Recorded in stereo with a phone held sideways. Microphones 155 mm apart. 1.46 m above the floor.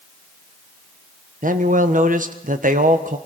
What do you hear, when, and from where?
1.4 s a man speaking: 60° right (ahead or behind), 1.4 m